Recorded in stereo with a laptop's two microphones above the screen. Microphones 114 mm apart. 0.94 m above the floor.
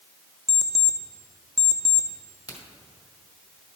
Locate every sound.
0.5 s an alarm clock: 5° left (ahead or behind), 0.5 m
2.5 s a crack: 35° left (ahead or behind), 2 m